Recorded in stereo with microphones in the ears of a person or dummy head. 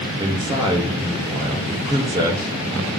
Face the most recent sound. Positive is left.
turn(degrees=-20)  # may be behind; listen again after turning